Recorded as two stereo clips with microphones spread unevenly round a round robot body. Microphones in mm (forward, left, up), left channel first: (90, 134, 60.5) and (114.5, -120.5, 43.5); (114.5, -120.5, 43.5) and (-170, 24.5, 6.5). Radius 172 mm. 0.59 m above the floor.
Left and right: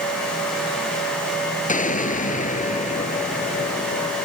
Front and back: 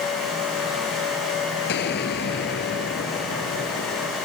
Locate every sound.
1.7 s an explosion: 35° left